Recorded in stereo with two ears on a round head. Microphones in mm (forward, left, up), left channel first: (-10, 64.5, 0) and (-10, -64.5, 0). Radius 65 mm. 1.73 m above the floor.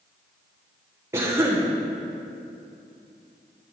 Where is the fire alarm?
No fire alarm in this recording.